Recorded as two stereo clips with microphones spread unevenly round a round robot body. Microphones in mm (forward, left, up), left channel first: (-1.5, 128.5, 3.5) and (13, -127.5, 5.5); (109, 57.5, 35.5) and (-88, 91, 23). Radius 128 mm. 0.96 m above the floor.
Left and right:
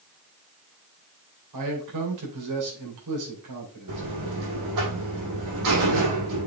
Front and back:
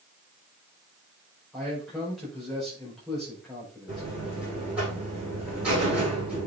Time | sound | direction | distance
1.5 | a man speaking | 100° right | 4.5 m
3.9 | a buzzer | 105° right | 5.5 m